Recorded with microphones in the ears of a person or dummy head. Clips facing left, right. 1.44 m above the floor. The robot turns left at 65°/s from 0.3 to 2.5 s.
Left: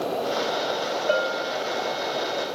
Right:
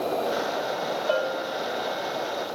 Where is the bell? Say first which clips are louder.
Left 2 dB; 150° left, 3 m; by 1.6 s 120° left, 3 m.